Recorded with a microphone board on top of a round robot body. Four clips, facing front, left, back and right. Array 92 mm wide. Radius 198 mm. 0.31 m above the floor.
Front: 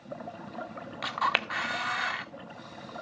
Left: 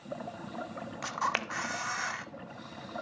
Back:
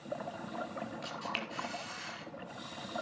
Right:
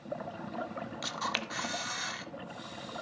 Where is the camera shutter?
25° left, 0.6 m.